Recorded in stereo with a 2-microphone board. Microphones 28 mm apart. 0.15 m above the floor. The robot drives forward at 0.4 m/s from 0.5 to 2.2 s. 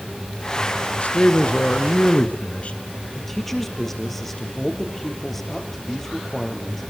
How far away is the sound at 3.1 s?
About 4 m.